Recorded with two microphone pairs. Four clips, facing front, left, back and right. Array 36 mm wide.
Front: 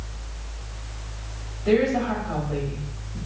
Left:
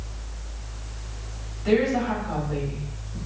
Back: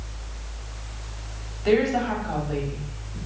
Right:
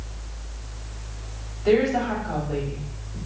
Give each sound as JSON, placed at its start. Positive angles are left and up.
{"t": 1.6, "sound": "a woman speaking", "azimuth_deg": -170, "distance_m": 2.5}